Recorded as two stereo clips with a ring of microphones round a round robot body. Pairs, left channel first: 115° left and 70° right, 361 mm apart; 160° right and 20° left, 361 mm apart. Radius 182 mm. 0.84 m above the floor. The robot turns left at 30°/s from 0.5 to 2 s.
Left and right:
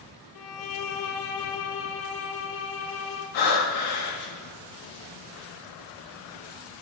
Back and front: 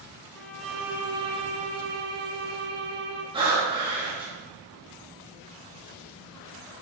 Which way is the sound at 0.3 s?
120° left.